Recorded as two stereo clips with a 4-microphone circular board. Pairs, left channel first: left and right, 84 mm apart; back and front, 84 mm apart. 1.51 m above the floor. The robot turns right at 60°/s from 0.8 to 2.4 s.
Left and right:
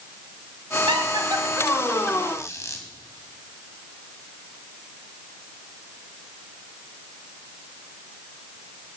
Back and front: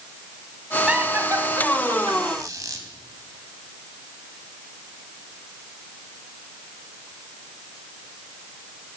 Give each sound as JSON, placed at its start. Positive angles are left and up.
{"t": 0.9, "sound": "laughter", "azimuth_deg": -80, "distance_m": 2.0}
{"t": 2.3, "sound": "a squeak", "azimuth_deg": 40, "distance_m": 2.0}